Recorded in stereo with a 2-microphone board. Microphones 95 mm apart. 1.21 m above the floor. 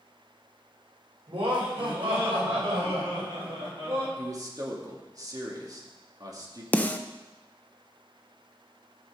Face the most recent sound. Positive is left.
turn(degrees=20)  # may be behind; listen again after turning